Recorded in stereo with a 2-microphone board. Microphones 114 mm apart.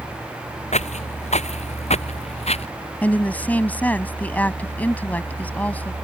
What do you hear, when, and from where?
0.7 s footsteps: 80° left; by 2.7 s 65° left (ahead or behind)
3.0 s a woman speaking: 15° left (ahead or behind)